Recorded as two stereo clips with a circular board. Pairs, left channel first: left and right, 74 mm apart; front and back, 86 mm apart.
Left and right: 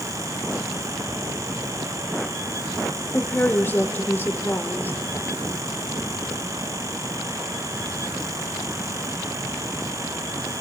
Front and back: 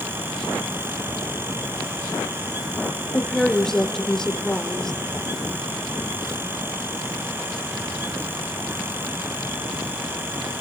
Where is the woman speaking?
75° left, 0.9 m.